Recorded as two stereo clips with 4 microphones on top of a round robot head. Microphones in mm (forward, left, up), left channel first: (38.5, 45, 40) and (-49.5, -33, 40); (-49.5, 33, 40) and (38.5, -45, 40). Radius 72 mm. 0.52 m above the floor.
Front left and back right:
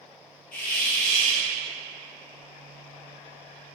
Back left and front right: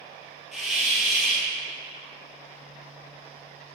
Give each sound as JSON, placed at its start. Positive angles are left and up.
{"t": 0.5, "sound": "a hiss", "azimuth_deg": 50, "distance_m": 3.0}